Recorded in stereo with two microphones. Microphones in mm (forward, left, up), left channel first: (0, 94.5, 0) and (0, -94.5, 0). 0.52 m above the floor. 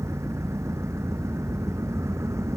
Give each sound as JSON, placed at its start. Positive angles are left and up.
{"t": 0.0, "sound": "an engine running", "side_deg": -15}